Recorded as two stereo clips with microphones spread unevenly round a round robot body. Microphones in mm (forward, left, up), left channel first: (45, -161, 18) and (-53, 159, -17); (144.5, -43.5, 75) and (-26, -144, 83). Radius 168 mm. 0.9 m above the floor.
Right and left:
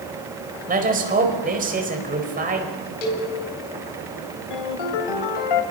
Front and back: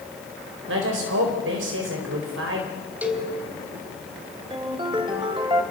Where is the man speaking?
175° left, 4.5 m.